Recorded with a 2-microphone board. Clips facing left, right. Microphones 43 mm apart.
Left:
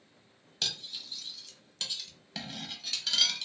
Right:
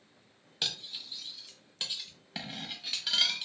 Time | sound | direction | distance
0.6 | cutlery clinking | 10° right (ahead or behind) | 0.5 m